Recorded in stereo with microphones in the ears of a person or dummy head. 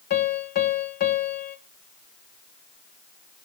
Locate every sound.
0.1 s a piano: 55° left (ahead or behind), 1.4 m